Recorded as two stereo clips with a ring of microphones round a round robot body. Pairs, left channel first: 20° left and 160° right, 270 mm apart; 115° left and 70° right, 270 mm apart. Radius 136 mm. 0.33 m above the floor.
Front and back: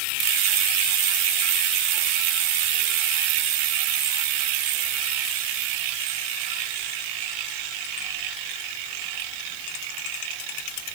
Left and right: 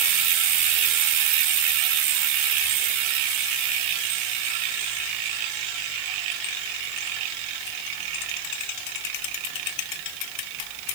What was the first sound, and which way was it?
Only background noise.